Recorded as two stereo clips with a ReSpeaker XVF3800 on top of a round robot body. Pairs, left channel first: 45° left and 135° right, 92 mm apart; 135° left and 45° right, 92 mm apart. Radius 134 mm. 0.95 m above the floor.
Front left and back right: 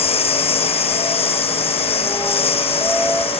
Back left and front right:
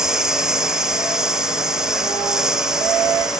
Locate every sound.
0.0 s a lawn mower: 40° left